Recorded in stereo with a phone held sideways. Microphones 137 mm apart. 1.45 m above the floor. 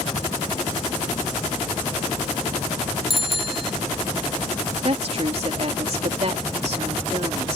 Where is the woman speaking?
50° right (ahead or behind).